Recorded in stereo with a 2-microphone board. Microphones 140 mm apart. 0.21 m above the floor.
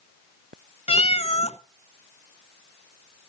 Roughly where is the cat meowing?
Left.